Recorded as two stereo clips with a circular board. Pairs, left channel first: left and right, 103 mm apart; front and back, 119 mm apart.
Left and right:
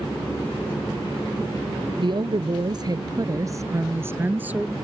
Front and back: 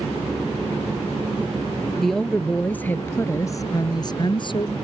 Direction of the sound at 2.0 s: 90° right.